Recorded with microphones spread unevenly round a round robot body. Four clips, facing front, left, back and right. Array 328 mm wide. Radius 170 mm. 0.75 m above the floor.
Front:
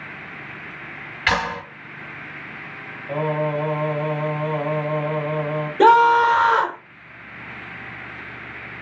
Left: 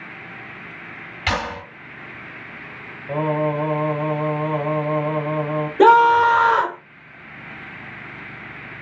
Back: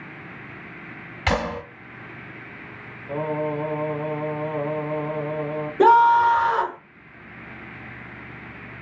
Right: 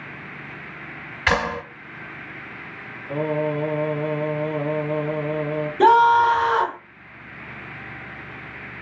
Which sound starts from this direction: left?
A scream, at 5.8 s.